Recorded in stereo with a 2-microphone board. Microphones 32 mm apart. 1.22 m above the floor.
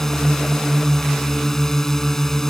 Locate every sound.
0.0 s a drone: 15° left (ahead or behind)